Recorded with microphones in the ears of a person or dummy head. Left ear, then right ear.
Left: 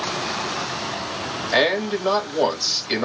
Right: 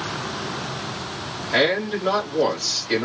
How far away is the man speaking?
About 2.5 m.